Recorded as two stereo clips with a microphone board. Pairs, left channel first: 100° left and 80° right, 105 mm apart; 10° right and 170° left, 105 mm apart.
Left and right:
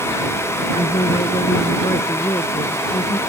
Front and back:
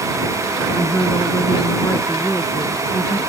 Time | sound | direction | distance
0.8 | a woman speaking | 60° left | ?